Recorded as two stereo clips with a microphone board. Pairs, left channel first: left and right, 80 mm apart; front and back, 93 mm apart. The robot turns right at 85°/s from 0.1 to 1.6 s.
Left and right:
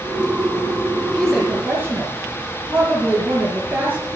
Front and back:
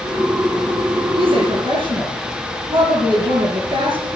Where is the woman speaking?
165° left, 4.5 m; by 4.1 s 155° right, 4.5 m.